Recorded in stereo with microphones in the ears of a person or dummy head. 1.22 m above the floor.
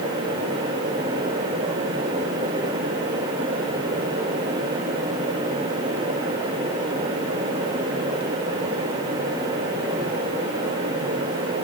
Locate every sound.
Only background noise.